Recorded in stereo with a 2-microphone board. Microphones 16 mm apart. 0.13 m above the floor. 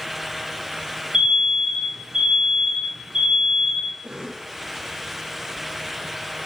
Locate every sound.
1.1 s an alarm: 60° right (ahead or behind), 8 m
4.0 s a cough: 60° right (ahead or behind), 4 m